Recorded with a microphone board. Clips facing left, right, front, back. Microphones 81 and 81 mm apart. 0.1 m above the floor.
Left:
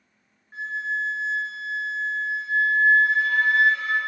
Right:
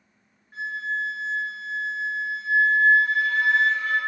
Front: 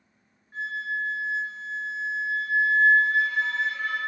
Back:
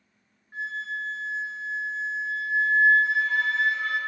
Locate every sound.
0.5 s a flute: 140° left, 1.2 m